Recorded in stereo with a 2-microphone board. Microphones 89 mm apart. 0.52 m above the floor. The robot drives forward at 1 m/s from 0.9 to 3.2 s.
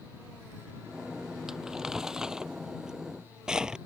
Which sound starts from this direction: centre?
Crumpling, at 1.5 s.